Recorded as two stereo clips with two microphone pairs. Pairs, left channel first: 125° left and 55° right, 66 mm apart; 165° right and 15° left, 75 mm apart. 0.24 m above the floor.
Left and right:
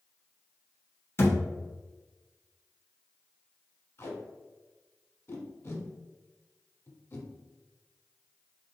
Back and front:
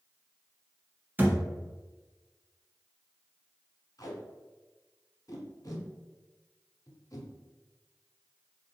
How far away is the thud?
About 0.7 m.